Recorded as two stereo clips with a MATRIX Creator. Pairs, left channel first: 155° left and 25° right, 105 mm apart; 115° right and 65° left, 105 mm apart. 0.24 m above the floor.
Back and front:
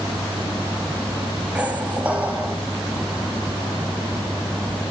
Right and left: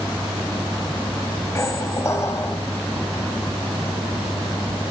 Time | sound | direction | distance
1.6 | a squeak | 85° right | 0.5 m